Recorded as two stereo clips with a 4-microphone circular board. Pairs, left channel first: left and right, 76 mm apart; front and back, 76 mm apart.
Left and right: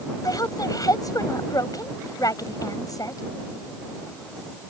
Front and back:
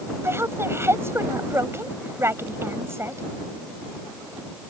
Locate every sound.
0.2 s a woman speaking: 125° left